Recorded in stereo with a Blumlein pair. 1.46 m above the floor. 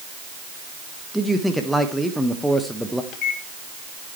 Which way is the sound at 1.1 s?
Straight ahead.